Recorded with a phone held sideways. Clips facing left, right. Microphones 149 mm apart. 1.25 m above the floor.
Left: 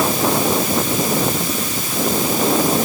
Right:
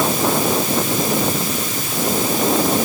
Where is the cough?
I don't hear a cough.